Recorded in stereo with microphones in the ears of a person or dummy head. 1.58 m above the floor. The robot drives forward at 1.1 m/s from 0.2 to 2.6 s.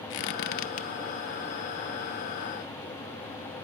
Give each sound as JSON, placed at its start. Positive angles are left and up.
{"t": 0.1, "sound": "a squeak", "side_deg": 60, "distance_m": 0.9}